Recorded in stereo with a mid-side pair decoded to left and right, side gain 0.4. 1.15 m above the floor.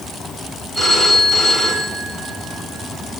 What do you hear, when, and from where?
0.8 s a phone ringing: 5° left, 6.5 m